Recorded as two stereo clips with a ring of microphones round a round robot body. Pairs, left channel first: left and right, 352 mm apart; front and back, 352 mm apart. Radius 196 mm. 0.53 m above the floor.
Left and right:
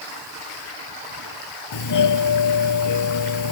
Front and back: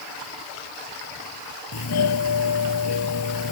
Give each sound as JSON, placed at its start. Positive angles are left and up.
{"t": 1.7, "sound": "a doorbell", "azimuth_deg": 55}